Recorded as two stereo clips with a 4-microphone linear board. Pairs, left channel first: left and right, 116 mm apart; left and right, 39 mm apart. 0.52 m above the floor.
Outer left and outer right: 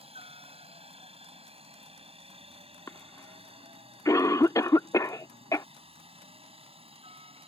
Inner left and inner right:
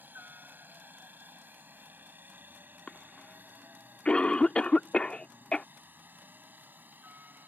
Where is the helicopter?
55° right (ahead or behind).